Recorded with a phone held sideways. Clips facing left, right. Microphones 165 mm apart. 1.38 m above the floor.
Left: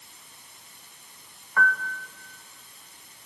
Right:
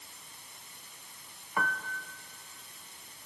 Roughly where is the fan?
No fan in this recording.